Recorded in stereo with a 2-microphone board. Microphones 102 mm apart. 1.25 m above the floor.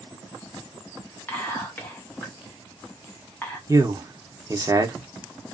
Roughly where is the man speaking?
Right.